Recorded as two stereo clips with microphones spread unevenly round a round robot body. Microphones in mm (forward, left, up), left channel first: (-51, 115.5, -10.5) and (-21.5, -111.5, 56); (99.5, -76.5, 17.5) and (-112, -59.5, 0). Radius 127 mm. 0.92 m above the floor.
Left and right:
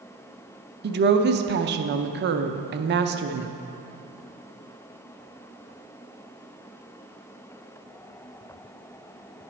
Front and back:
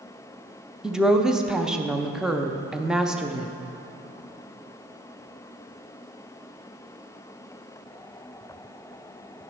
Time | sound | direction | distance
0.8 | a woman speaking | 110° right | 0.6 m